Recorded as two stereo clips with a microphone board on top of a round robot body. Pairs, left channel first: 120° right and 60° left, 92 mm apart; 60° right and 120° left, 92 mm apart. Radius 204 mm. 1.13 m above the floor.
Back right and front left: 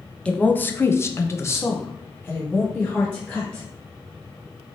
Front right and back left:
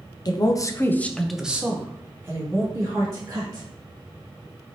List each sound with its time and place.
0.2 s a woman speaking: 45° right, 0.7 m; by 3.7 s 170° left, 1.6 m